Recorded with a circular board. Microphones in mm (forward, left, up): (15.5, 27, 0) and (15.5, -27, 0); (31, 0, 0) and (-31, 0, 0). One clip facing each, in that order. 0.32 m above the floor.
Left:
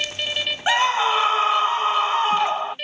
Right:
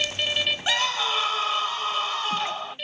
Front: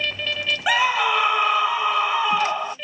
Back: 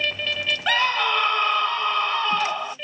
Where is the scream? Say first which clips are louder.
Left 10 dB, front 2 dB; 70° left.